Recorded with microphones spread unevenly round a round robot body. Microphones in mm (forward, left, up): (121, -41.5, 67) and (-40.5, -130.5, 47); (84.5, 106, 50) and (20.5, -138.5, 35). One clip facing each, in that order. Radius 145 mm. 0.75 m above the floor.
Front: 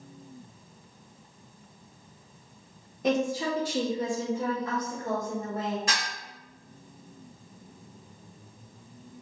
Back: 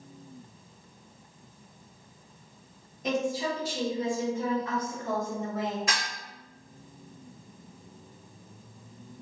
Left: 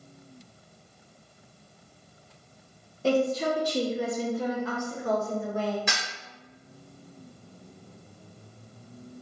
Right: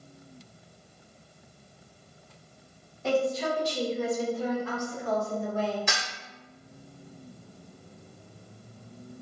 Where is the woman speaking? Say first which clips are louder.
Front 2 dB, left 2 dB; 20° left, 0.7 m; by 5.8 s 115° left, 1.4 m.